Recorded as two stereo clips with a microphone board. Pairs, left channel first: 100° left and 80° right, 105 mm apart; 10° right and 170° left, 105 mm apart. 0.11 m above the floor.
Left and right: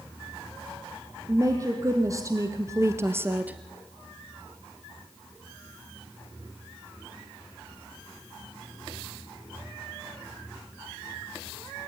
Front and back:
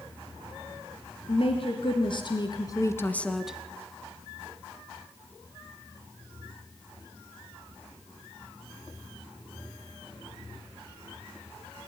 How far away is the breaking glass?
No breaking glass in this recording.